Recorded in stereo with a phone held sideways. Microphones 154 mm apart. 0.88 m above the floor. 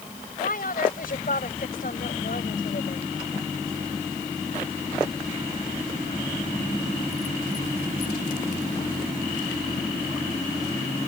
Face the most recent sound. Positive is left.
turn(degrees=70)  # may be behind; listen again after turning